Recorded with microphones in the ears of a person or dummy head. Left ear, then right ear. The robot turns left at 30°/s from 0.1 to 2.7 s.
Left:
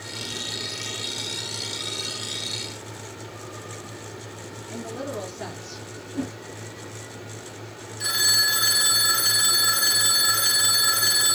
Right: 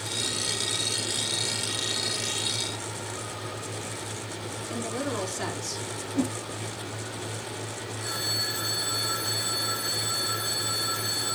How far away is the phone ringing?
About 1.2 m.